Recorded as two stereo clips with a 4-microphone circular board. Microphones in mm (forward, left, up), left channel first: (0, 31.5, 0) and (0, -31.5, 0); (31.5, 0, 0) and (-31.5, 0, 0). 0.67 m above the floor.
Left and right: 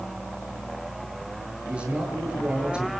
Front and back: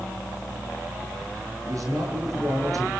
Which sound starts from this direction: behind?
A man speaking, at 1.6 s.